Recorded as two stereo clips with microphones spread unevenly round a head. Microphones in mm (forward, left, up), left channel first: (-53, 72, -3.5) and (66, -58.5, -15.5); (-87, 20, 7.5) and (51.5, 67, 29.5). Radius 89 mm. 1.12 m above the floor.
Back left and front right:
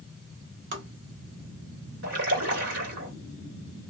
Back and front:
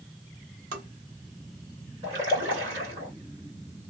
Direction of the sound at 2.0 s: 55° right.